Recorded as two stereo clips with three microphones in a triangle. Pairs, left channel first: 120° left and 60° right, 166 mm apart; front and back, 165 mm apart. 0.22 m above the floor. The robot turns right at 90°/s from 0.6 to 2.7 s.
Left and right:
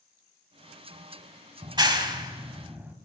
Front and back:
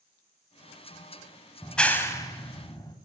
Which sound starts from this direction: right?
A clap, at 1.6 s.